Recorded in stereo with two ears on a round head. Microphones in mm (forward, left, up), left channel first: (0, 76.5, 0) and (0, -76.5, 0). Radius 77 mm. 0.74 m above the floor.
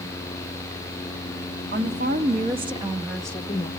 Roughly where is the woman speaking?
Right.